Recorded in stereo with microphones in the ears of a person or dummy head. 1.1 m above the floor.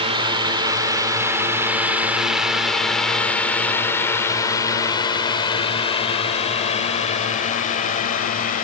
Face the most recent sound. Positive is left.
turn(degrees=40)  # may be behind; listen again after turning